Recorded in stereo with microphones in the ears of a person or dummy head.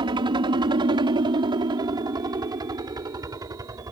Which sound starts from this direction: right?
A helicopter, at 0.0 s.